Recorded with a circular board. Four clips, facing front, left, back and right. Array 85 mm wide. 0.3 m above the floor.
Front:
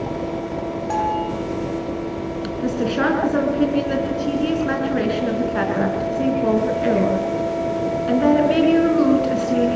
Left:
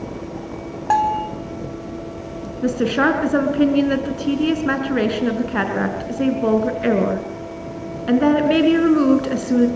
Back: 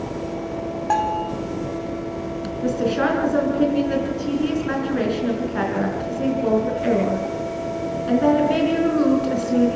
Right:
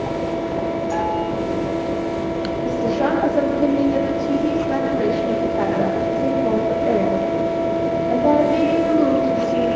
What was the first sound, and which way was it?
A bell, 120° left.